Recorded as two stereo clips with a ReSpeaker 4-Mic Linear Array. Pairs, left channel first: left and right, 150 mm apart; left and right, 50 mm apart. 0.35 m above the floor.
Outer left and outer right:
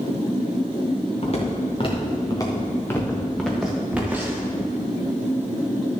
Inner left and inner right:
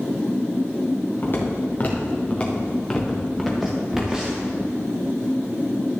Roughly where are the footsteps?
Left.